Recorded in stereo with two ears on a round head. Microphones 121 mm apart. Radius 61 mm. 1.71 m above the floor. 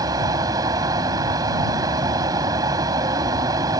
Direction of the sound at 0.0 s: 30° right (ahead or behind).